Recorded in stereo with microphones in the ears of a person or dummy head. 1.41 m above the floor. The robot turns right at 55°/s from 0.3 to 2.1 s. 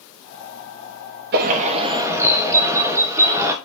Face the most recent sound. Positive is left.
turn(degrees=-15)